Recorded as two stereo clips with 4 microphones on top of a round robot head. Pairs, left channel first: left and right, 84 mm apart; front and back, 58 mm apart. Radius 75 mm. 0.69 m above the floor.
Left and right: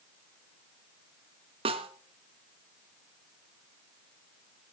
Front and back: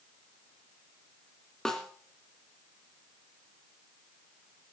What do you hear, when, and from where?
1.6 s a snare drum: 85° right, 1.2 m